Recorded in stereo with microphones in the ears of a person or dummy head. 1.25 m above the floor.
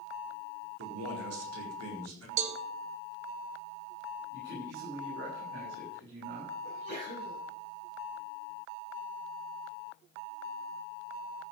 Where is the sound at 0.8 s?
80° right, 4 m.